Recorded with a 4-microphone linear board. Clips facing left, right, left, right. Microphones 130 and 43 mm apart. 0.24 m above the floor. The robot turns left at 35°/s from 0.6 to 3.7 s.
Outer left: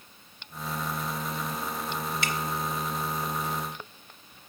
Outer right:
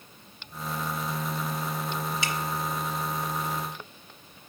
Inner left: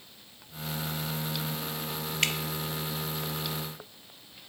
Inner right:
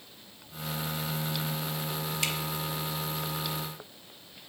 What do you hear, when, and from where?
2.2 s dripping: 55° left (ahead or behind), 0.7 m